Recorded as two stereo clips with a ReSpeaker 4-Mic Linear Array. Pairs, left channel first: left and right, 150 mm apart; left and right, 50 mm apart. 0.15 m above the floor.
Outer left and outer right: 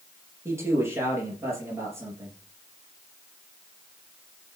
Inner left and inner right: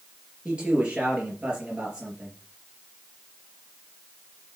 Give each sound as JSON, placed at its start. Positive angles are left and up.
{"t": 0.5, "sound": "a man speaking", "side_deg": -20, "distance_m": 3.5}